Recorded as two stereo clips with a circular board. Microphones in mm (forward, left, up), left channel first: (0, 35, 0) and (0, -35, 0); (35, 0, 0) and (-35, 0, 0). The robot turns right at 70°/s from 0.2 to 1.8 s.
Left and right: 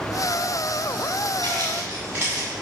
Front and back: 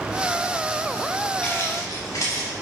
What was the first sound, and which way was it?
Footsteps, 70° right.